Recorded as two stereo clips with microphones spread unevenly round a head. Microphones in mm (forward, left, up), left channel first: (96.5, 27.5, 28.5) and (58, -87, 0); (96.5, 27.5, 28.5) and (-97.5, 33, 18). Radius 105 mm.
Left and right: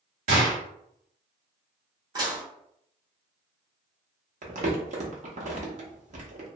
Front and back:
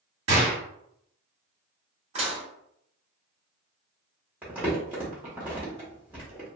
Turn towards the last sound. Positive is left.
turn(degrees=-100)